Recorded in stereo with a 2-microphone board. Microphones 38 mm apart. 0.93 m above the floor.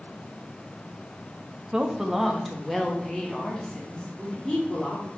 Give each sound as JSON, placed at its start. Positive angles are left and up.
{"t": 1.7, "sound": "a woman speaking", "side_deg": -20, "distance_m": 0.8}